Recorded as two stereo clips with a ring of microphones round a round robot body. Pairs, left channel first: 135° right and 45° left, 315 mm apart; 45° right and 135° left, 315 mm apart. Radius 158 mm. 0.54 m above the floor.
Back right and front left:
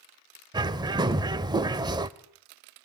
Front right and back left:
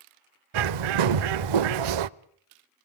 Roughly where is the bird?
Behind left.